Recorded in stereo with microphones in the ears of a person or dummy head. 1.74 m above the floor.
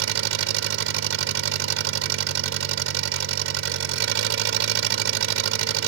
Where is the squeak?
No squeak in this recording.